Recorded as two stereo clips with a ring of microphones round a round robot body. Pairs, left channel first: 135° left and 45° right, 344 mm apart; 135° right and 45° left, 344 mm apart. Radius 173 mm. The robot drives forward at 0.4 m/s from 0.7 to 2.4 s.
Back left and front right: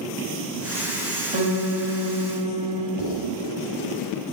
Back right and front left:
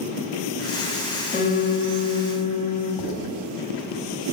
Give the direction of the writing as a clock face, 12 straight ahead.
5 o'clock.